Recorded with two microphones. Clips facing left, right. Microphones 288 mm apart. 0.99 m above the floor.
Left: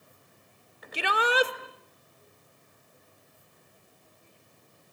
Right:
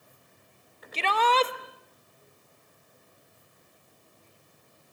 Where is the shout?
10° left (ahead or behind), 1.5 m.